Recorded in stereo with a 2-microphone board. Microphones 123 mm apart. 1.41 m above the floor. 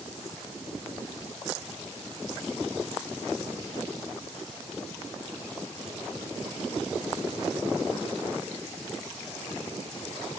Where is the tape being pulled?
No tape being pulled in this recording.